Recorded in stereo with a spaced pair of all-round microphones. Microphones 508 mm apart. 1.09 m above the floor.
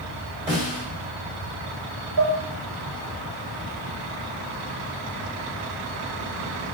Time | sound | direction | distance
0.5 | a snare drum | 15° right (ahead or behind) | 2.5 m
2.2 | dishes clattering | 45° right (ahead or behind) | 1.3 m